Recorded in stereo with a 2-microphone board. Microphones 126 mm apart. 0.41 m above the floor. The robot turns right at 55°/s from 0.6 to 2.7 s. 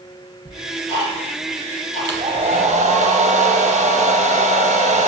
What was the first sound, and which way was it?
Ticking, 20° left (ahead or behind).